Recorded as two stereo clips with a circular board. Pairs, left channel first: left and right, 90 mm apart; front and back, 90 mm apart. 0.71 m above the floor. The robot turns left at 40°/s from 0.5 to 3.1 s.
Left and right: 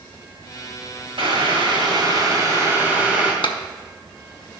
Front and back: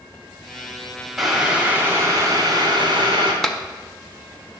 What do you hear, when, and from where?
1.2 s boiling: 90° right, 2 m; by 3.3 s 170° right, 2 m
3.4 s a clap: 85° left, 0.7 m